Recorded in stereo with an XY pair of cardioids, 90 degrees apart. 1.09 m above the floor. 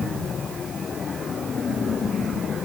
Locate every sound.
Only background noise.